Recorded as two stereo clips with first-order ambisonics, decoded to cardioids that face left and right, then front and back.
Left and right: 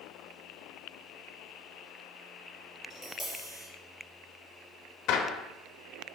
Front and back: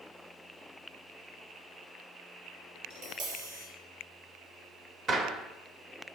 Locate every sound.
2.9 s tapping: 170° right, 2 m
5.1 s a gunshot: 125° left, 1.1 m